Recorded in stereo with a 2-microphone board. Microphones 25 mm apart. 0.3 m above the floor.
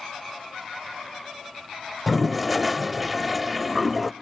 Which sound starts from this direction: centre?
A toilet flushing, at 2.1 s.